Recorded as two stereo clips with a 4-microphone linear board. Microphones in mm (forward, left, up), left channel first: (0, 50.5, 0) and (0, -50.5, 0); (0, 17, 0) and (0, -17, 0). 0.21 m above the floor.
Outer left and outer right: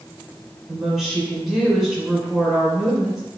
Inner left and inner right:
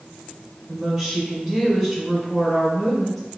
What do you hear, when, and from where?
0.7 s a woman speaking: centre (ahead or behind), 1.8 m